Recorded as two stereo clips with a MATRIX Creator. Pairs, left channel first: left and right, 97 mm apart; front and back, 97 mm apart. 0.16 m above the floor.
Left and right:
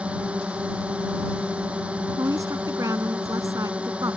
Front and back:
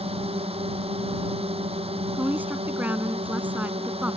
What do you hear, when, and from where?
0.0 s a drone: 170° right
2.1 s a woman speaking: 120° right